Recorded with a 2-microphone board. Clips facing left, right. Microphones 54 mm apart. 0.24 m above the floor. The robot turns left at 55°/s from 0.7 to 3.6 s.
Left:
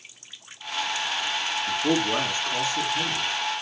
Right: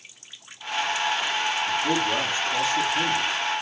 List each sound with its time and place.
1.7 s a man speaking: 65° left, 4 m; by 3.3 s 20° right, 4 m